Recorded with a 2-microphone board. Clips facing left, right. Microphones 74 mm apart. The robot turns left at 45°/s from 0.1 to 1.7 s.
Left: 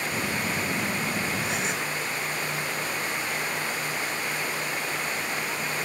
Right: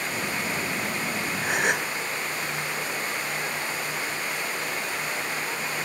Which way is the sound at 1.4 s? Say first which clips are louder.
Right 4 dB; 50° right (ahead or behind).